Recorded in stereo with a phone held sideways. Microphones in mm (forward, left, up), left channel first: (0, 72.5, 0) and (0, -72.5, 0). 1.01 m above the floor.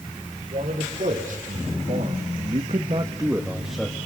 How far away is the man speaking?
About 3.5 m.